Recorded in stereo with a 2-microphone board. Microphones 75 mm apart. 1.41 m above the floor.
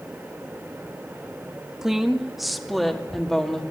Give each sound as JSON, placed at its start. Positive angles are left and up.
{"t": 1.8, "sound": "a woman speaking", "side_deg": -5, "distance_m": 1.9}